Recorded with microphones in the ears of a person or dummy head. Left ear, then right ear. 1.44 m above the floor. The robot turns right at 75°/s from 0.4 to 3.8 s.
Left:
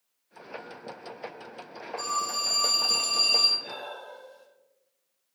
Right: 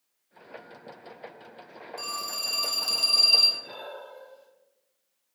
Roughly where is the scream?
I don't hear a scream.